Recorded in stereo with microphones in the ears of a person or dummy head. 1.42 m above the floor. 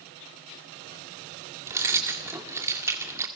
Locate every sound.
1.7 s keys jangling: 15° right (ahead or behind), 1.9 m